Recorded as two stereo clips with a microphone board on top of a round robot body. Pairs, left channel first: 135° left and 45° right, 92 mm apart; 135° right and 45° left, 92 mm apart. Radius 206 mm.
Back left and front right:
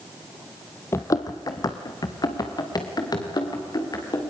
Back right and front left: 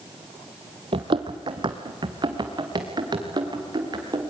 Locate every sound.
0.9 s running footsteps: 75° left, 0.6 m; by 4.3 s 90° left, 5.5 m